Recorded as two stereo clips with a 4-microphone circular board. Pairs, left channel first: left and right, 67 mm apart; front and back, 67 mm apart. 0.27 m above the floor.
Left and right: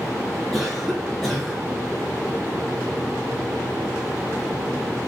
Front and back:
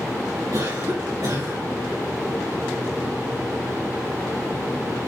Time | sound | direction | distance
0.5 | a cough | 175° left | 4.5 m